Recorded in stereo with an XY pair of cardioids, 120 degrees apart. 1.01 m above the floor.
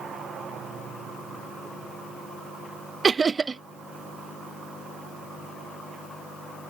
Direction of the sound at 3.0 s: 25° right.